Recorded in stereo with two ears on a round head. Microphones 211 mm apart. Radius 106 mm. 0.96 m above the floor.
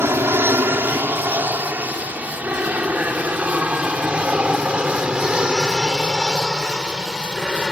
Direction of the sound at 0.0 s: 10° right (ahead or behind).